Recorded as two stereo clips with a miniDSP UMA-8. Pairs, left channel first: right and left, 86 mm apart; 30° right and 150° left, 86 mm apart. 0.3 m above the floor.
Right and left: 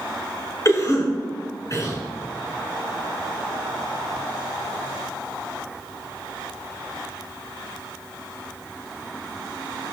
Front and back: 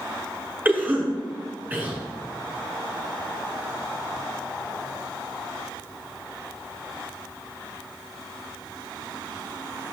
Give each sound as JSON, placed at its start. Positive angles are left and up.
{"t": 0.7, "sound": "a cough", "azimuth_deg": -140, "distance_m": 3.0}